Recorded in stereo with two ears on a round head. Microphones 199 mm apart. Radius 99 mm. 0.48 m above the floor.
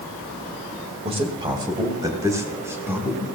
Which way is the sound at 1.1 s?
30° right (ahead or behind).